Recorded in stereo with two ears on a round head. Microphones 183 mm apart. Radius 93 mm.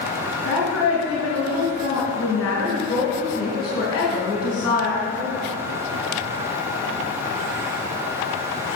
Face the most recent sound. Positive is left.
turn(degrees=20)  # may be behind; listen again after turning